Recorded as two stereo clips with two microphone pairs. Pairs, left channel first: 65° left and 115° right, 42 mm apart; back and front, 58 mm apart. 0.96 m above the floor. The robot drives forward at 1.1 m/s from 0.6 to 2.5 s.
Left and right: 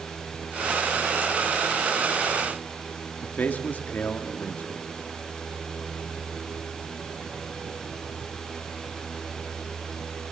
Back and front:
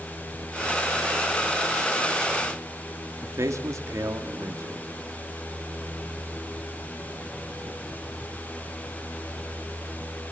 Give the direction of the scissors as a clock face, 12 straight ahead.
No scissors in this recording.